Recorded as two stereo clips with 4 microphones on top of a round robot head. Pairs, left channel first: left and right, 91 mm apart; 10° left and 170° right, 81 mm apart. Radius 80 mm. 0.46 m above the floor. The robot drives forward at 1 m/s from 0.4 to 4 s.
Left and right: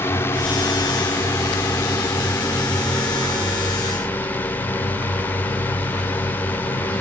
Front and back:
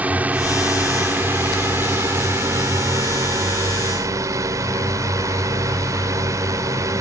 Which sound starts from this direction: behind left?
A drone, at 0.0 s.